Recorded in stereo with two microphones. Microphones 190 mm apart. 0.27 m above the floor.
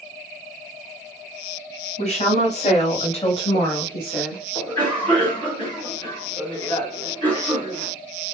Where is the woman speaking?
35° left (ahead or behind), 1.8 m; by 4.4 s 5° left (ahead or behind), 1.5 m.